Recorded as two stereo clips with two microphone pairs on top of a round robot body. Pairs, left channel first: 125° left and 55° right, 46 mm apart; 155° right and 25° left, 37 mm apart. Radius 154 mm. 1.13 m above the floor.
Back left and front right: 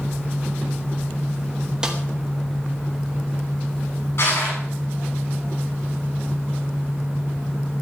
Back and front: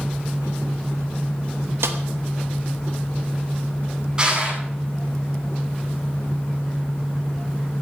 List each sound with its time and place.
1.8 s a snare drum: 20° left, 1.2 m
4.2 s crushing: 95° left, 9.5 m